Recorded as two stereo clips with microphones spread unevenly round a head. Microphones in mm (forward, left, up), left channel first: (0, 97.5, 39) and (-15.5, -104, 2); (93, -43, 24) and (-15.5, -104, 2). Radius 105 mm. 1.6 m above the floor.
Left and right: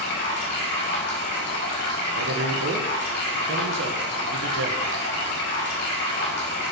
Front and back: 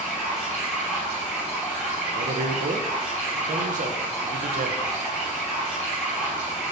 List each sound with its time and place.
0.0 s running water: 120° left, 4.5 m
2.1 s a man speaking: 130° right, 1.3 m